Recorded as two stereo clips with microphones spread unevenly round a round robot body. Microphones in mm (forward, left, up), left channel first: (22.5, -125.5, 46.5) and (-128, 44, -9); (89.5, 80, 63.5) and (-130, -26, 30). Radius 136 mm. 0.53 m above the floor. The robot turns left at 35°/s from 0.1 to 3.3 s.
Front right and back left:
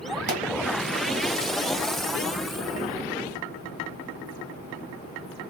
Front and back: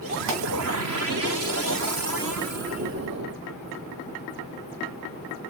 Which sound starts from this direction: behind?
A pop, at 0.3 s.